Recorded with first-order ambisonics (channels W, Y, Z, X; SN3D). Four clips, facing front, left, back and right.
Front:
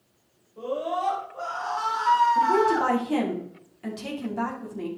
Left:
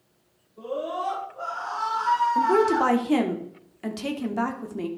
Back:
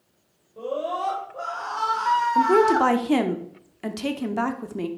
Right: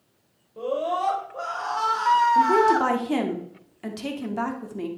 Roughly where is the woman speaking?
Behind.